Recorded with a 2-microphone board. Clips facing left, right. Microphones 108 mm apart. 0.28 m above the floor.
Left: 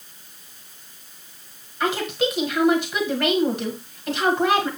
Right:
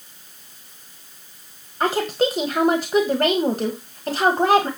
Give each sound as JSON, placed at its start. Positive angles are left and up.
{"t": 1.8, "sound": "a woman speaking", "side_deg": -45, "distance_m": 1.4}